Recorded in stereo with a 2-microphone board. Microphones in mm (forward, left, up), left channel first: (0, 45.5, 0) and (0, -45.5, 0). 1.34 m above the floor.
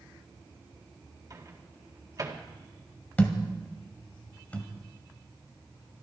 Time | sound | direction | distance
1.3 | a microwave | 40° right (ahead or behind) | 1.9 m
3.2 | a thud | 15° left (ahead or behind) | 1.8 m